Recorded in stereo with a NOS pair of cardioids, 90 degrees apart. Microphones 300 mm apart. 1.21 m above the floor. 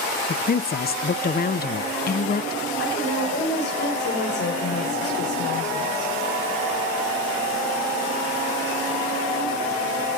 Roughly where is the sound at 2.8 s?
Ahead left.